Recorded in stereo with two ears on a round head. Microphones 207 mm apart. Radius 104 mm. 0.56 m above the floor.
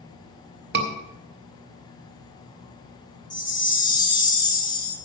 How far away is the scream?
About 2.0 m.